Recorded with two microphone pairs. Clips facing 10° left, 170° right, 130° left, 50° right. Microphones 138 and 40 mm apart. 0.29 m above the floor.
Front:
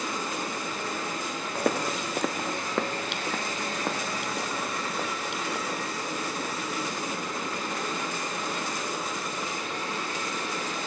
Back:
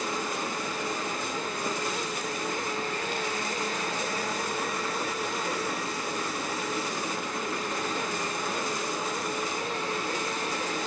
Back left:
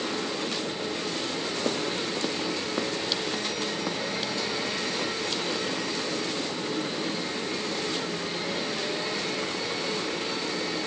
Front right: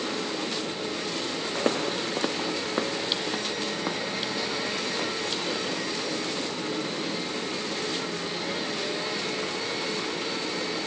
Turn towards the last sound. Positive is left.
turn(degrees=30)